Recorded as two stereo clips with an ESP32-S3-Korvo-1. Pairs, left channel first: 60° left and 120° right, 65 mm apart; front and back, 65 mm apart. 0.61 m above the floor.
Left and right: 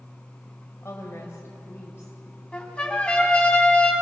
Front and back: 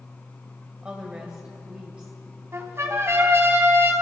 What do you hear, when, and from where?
0.8 s a woman speaking: 110° left, 2.5 m
2.5 s a trumpet: 135° left, 3 m